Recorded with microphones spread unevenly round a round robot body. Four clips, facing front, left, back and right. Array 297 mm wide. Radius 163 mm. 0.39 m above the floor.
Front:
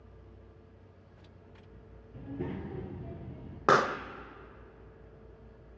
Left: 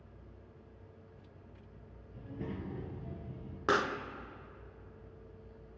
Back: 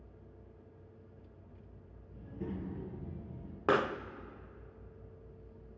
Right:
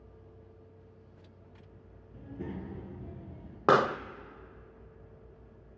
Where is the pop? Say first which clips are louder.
Right 7 dB, front 5 dB; 55° right, 0.8 m.